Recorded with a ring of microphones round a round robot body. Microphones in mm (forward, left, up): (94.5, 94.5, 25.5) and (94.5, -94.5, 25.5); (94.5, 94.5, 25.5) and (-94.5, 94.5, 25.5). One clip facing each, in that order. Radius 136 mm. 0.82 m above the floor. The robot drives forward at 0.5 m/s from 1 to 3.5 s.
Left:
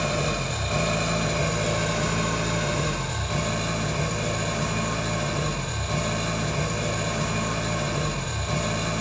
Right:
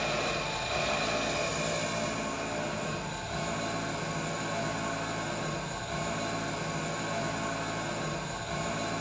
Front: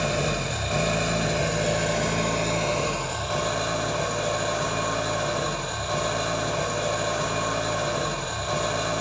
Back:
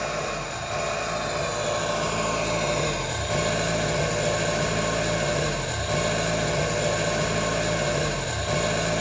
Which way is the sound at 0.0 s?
55° left.